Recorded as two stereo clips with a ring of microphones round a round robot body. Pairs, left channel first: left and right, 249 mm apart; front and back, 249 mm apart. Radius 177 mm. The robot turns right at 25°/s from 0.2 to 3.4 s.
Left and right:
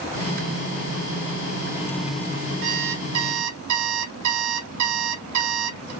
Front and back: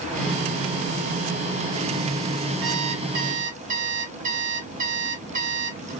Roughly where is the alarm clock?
Behind right.